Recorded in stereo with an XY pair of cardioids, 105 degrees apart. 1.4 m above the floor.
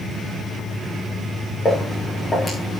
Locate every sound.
1.6 s footsteps: 25° left, 7.5 m